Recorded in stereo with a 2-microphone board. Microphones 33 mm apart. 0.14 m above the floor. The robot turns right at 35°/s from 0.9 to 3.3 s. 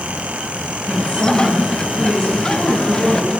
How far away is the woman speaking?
About 4.5 m.